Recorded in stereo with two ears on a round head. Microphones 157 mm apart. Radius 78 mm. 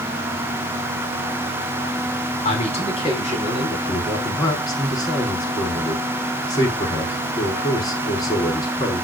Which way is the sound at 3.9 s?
25° left (ahead or behind).